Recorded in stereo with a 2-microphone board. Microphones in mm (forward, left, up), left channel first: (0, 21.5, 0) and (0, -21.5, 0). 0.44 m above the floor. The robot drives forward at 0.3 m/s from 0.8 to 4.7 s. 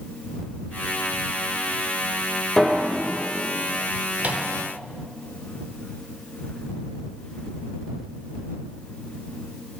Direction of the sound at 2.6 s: 5° left (ahead or behind).